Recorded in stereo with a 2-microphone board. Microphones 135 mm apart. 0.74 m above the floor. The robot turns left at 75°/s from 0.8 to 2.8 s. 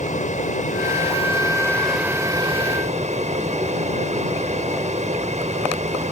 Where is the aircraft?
85° left; by 6.1 s 65° right.